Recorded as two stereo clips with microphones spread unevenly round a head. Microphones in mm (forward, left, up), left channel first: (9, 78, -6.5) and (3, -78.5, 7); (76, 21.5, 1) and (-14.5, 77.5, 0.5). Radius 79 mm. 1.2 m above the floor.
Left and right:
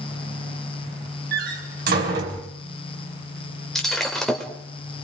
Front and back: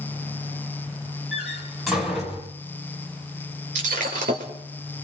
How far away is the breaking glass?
About 3 m.